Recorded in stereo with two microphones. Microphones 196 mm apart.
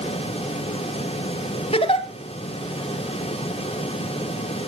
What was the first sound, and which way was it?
A giggle, 30° left (ahead or behind).